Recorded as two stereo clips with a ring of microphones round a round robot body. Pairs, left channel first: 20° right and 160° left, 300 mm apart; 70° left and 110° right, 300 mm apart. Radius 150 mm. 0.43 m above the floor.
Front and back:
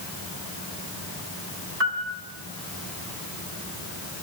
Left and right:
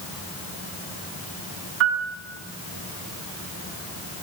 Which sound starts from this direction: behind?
A piano, at 1.8 s.